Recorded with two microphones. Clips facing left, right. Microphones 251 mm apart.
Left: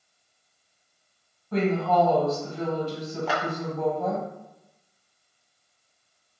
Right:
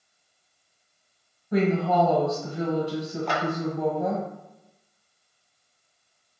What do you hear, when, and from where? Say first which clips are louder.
1.5 s a woman speaking: right 1 dB; 15° right (ahead or behind), 1.4 m
3.3 s a clap: even; 5° left (ahead or behind), 0.9 m